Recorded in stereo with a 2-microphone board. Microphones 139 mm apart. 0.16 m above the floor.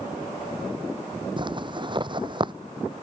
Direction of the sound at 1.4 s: 35° right (ahead or behind).